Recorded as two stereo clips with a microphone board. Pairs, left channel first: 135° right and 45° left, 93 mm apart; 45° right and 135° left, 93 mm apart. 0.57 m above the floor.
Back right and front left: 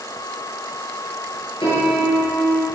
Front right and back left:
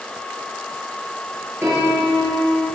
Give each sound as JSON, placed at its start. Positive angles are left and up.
{"t": 1.6, "sound": "a piano", "azimuth_deg": -160, "distance_m": 7.0}